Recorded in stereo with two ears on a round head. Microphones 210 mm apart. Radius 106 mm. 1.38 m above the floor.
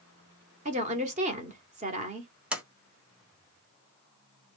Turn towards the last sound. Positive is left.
turn(degrees=-5)  # may be behind; listen again after turning